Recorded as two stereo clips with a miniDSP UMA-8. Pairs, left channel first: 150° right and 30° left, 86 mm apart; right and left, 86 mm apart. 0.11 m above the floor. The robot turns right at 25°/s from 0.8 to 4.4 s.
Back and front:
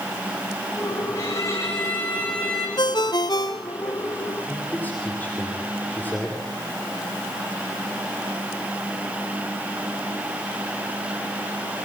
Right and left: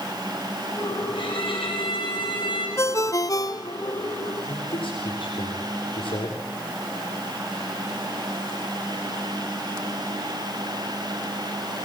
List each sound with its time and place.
1.1 s a violin: 105° right, 8 m; by 2.7 s 65° right, 8 m
2.8 s a ringtone: 140° right, 1.5 m; by 4.0 s 110° right, 1.5 m
4.4 s a man speaking: 80° right, 9 m